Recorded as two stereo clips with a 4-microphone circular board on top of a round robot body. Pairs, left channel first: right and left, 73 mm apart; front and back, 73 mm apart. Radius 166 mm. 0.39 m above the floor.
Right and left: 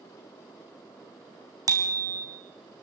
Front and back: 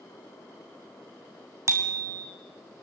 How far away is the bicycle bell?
About 3 m.